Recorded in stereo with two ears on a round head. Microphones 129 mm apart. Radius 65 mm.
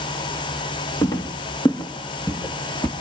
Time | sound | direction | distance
1.0 | footsteps | 25° left (ahead or behind) | 1.9 m